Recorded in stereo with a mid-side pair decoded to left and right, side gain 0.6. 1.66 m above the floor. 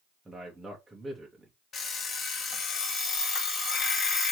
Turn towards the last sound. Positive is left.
turn(degrees=40)